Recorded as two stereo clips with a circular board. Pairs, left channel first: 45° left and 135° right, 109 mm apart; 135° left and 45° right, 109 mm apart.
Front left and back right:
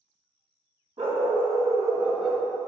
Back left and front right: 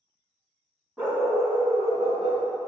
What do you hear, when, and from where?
1.0 s a dog barking: 115° right, 1.6 m; by 2.4 s 35° right, 1.1 m